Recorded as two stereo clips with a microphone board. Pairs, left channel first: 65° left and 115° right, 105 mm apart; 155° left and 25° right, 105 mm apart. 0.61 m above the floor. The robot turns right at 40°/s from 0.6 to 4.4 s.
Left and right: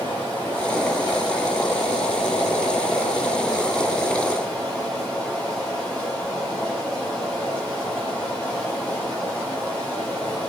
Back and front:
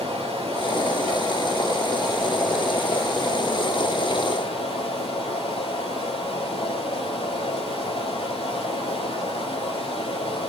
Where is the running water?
5° right, 7.5 m; by 10.5 s 145° left, 7.5 m.